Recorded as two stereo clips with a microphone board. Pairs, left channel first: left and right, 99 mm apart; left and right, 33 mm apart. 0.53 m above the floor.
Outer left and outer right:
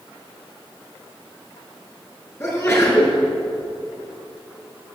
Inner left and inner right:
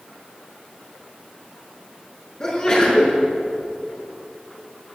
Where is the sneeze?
30° left (ahead or behind), 5.5 m.